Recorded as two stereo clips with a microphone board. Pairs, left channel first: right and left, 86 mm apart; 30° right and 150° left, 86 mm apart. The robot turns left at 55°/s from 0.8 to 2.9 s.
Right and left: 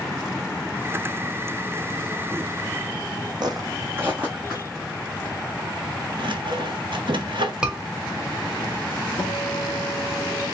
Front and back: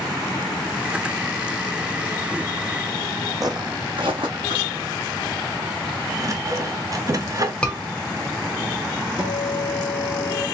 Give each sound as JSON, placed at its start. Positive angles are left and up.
{"t": 3.4, "sound": "footsteps", "azimuth_deg": 110, "distance_m": 0.7}
{"t": 6.2, "sound": "sawing", "azimuth_deg": 100, "distance_m": 0.6}
{"t": 7.6, "sound": "a scream", "azimuth_deg": 25, "distance_m": 0.9}
{"t": 9.2, "sound": "a guitar", "azimuth_deg": -145, "distance_m": 1.9}